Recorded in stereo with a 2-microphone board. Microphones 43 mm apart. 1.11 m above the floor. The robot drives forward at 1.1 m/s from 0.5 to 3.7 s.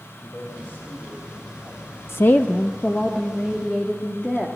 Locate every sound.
0.2 s a man speaking: 45° left (ahead or behind), 5 m; by 1.9 s 35° left (ahead or behind), 6 m
2.1 s a woman speaking: 60° left (ahead or behind), 0.5 m; by 4.5 s 15° left (ahead or behind), 2 m